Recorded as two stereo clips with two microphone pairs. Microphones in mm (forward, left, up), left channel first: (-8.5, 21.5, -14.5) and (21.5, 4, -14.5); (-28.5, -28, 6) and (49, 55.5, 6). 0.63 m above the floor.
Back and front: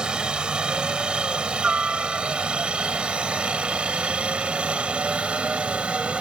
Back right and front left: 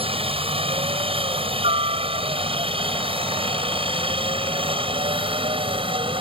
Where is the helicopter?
30° left; by 6.2 s 20° left.